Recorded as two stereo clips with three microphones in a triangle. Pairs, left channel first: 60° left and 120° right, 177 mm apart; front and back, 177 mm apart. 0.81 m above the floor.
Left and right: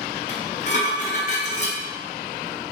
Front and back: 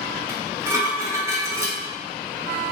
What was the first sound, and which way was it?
Dishes clattering, 105° left.